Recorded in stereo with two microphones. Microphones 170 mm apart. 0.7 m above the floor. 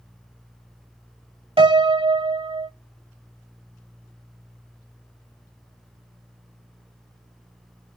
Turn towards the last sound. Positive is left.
turn(degrees=-30)  # may be behind; listen again after turning